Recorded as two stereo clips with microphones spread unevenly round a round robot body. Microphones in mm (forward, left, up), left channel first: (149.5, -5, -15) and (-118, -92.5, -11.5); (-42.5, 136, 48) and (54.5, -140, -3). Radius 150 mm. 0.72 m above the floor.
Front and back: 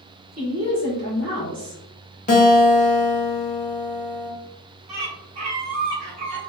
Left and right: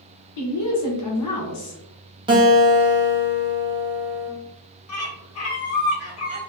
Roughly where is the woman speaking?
Behind left.